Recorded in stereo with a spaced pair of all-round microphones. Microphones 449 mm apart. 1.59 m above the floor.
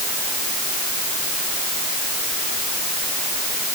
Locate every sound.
Only background noise.